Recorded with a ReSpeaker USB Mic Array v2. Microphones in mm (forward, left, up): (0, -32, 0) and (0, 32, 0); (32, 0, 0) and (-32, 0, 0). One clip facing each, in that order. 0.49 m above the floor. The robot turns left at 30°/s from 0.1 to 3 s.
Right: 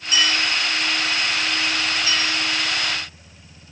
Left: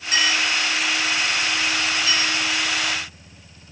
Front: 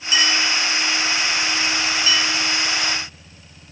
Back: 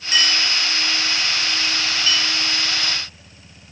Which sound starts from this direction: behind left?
A clink, at 0.1 s.